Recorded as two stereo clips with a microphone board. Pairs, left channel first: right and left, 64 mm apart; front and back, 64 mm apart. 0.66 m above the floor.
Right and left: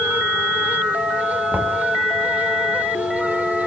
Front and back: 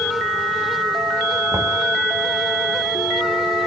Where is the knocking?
150° left, 3 m.